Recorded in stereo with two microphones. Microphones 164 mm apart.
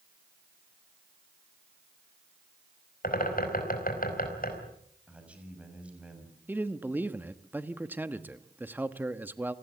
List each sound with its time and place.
3.0 s a bird: 60° left (ahead or behind), 4.5 m
5.1 s a man speaking: 5° right (ahead or behind), 6.5 m
6.5 s a man speaking: 10° right (ahead or behind), 1.1 m